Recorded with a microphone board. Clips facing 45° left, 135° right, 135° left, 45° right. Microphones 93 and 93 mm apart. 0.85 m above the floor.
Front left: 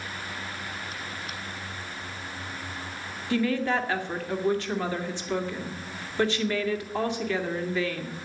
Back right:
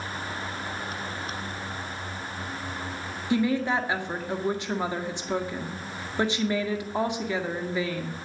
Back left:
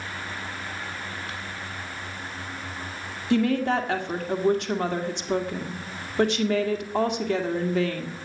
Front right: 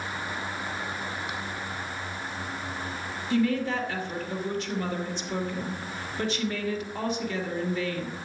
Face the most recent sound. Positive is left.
turn(degrees=155)